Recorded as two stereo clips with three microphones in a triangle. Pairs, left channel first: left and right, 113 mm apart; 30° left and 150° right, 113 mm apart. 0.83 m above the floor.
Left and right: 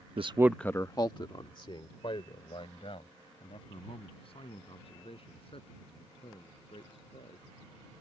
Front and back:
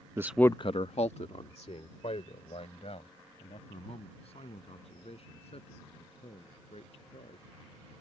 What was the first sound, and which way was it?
A man speaking, 90° right.